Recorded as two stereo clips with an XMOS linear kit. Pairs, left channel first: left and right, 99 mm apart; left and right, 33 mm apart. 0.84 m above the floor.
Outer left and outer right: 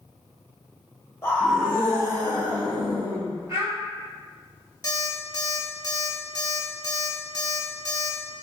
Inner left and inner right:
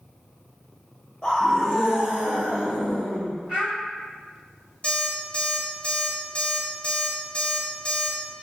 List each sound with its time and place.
1.2 s a scream: 25° left (ahead or behind), 0.6 m; by 3.3 s 55° right (ahead or behind), 1.8 m
3.5 s a child speaking: 35° right (ahead or behind), 1.6 m
4.8 s an alarm clock: 35° left (ahead or behind), 1.0 m